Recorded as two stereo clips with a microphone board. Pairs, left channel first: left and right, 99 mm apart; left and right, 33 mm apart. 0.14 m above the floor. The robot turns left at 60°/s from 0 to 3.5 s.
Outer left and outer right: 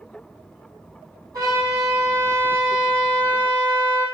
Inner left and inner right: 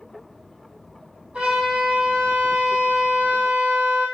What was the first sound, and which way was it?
A trumpet, 145° right.